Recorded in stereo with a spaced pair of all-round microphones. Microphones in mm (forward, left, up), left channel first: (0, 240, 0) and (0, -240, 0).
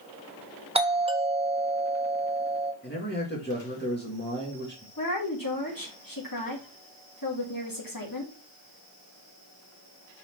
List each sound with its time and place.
0.8 s a doorbell: 10° right (ahead or behind), 1.0 m
2.8 s a man speaking: 20° left (ahead or behind), 2 m
5.0 s a woman speaking: 45° left (ahead or behind), 2 m